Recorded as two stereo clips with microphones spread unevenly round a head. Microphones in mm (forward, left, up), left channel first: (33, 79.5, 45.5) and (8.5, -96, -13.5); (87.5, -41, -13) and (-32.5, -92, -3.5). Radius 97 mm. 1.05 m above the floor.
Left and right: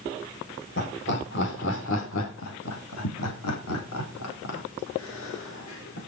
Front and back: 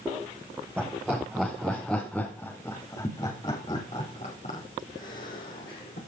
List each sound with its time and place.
0.8 s laughter: 120° left, 5 m; by 6.0 s 60° left, 4.5 m